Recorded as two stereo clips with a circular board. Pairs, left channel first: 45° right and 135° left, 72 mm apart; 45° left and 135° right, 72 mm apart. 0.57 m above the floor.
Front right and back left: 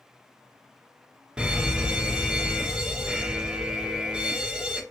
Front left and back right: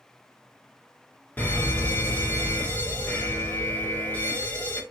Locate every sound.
1.4 s a fire alarm: 70° left, 1.8 m